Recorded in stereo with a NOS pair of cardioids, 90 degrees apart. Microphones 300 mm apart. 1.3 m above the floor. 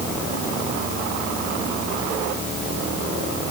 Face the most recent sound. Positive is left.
No sound to turn to.